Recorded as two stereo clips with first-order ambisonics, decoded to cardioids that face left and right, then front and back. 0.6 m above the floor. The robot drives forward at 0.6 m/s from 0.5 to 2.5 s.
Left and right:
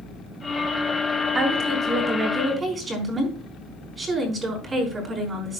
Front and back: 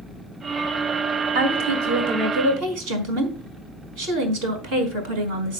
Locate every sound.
1.4 s a woman speaking: 160° right, 4 m; by 5.6 s 165° right, 4.5 m